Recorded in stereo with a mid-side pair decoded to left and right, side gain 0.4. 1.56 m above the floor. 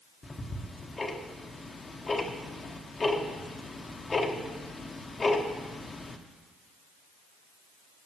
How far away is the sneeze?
No sneeze in this recording.